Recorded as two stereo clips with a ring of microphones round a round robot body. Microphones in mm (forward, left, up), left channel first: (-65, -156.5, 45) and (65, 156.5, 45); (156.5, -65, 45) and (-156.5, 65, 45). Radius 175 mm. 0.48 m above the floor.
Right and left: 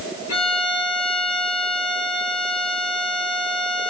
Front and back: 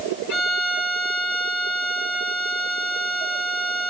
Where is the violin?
65° right, 6 m.